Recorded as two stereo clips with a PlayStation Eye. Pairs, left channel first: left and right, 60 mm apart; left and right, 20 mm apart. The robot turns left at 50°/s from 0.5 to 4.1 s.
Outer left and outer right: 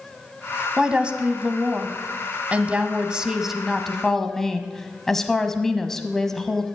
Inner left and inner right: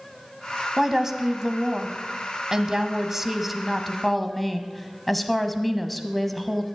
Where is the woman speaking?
10° right (ahead or behind), 1.1 m; by 6.6 s 5° left (ahead or behind), 1.1 m.